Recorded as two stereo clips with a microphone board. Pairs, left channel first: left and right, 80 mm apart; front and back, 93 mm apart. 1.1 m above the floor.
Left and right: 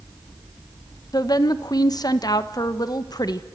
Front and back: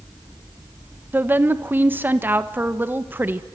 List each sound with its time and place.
1.1 s a woman speaking: 115° left, 1.2 m